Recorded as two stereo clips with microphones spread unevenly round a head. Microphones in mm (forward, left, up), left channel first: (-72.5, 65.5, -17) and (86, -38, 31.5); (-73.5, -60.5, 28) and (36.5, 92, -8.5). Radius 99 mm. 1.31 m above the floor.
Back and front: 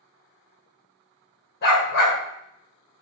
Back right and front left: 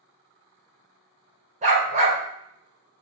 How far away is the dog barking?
About 1.9 m.